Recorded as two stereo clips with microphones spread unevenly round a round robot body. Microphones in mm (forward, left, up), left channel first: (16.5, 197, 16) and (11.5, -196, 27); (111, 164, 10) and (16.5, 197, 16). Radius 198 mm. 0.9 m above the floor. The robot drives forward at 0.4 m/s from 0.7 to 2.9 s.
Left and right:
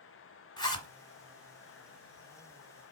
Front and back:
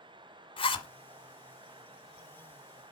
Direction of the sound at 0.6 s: 10° left.